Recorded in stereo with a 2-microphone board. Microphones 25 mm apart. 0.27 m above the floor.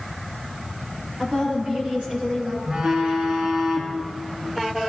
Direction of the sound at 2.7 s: 45° right (ahead or behind).